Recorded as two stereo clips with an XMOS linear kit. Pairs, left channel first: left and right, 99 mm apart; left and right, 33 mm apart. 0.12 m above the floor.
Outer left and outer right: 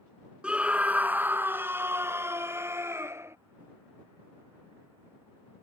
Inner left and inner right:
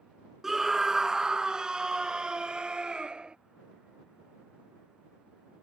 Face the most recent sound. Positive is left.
turn(degrees=-30)  # may be behind; listen again after turning